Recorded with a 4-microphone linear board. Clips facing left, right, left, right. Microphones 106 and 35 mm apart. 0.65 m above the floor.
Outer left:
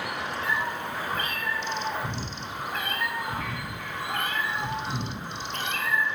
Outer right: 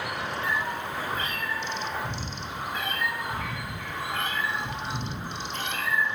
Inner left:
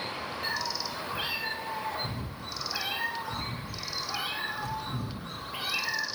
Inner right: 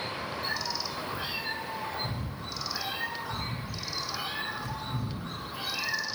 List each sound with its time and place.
0.4 s a cat meowing: 55° left (ahead or behind), 3 m